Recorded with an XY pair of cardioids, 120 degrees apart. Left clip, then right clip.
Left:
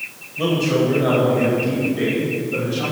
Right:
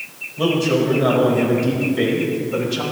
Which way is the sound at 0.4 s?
15° right.